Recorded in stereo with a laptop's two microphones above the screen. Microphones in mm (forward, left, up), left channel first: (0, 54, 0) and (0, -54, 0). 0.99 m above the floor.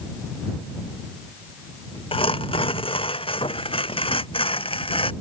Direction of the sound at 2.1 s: 50° left (ahead or behind).